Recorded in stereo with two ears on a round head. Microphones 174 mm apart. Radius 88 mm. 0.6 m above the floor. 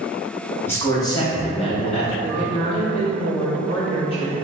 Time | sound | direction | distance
0.7 | a man speaking | 10° left (ahead or behind) | 0.8 m
2.2 | a woman speaking | 30° left (ahead or behind) | 0.8 m